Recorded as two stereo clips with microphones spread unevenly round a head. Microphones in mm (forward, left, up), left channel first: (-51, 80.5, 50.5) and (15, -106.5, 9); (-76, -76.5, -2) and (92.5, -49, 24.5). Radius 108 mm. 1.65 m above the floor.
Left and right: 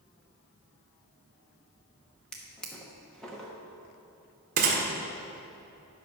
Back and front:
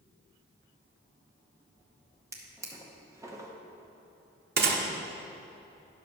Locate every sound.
2.3 s a drawer: 50° left, 0.8 m
4.6 s a gunshot: 15° right, 1.2 m